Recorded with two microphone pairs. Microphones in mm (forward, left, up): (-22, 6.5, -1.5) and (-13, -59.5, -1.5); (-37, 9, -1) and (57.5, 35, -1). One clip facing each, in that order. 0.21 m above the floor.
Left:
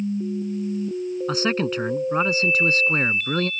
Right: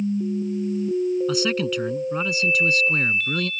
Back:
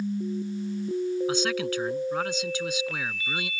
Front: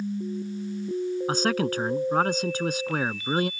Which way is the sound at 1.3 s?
50° left.